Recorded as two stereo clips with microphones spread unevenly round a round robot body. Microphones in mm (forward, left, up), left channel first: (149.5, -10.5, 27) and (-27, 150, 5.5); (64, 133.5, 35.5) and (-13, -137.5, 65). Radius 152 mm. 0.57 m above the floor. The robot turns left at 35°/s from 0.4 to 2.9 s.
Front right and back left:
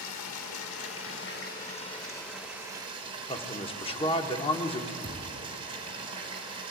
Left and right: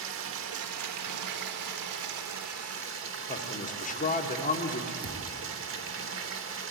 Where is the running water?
65° right, 1.3 m; by 6.7 s 150° right, 1.3 m.